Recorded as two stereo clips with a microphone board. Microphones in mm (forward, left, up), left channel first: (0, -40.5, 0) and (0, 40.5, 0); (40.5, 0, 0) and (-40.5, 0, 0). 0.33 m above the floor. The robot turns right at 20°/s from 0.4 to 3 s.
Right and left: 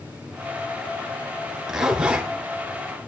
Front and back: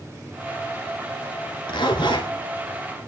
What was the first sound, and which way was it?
A zipper, 5° left.